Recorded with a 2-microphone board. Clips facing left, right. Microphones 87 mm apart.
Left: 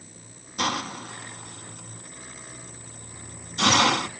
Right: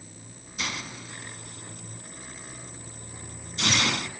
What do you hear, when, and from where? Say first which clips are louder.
0.6 s a hiss: left 8 dB; 65° left (ahead or behind), 0.6 m